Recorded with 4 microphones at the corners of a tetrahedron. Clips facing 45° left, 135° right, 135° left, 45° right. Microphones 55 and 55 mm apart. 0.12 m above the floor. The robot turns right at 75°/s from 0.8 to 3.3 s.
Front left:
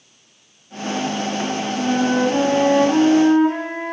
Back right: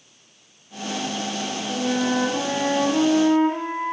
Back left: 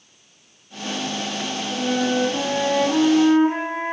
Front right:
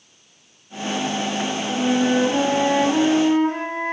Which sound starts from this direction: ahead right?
A flute, at 1.7 s.